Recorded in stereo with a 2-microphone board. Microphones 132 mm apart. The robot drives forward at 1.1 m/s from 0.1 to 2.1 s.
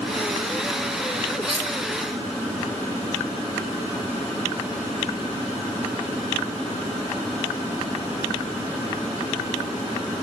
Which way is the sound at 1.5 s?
45° right (ahead or behind).